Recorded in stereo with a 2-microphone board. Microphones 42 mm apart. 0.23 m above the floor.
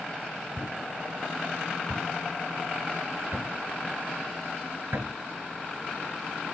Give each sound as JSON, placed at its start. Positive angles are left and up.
{"t": 0.6, "sound": "a thud", "side_deg": -70, "distance_m": 1.1}